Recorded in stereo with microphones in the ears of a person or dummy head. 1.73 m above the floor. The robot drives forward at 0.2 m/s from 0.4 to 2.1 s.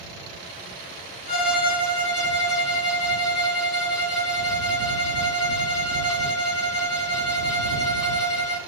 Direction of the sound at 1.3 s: 30° left (ahead or behind).